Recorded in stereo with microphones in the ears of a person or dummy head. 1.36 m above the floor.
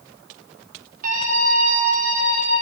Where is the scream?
50° right (ahead or behind), 4 m; by 2.6 s 35° right (ahead or behind), 4.5 m.